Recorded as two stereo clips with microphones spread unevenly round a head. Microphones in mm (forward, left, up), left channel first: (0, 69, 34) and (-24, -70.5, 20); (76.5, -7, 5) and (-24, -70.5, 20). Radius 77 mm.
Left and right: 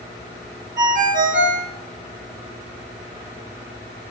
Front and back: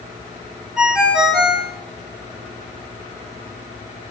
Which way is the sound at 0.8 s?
70° right.